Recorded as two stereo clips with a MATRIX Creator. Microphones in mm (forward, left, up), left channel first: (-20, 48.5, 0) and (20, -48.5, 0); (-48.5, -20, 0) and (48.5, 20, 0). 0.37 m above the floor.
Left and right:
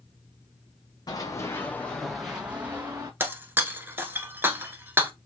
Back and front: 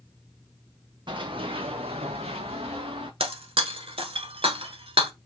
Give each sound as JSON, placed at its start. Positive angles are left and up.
{"t": 1.1, "sound": "running footsteps", "azimuth_deg": 60, "distance_m": 1.1}
{"t": 3.2, "sound": "breaking glass", "azimuth_deg": 0, "distance_m": 0.8}